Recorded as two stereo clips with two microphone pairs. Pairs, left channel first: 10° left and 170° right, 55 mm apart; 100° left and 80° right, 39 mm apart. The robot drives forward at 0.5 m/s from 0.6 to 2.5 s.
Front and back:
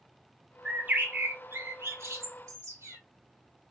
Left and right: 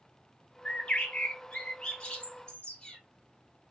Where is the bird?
145° left, 0.5 m; by 3.0 s 170° left, 1.3 m.